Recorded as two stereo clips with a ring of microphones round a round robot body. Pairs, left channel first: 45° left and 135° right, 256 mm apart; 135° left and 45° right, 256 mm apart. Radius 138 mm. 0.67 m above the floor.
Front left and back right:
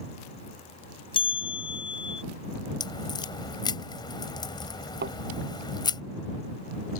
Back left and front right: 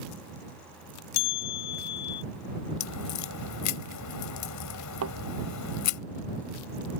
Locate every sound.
1.1 s a bell: 115° left
2.8 s a crack: 120° left
5.0 s a thud: 80° right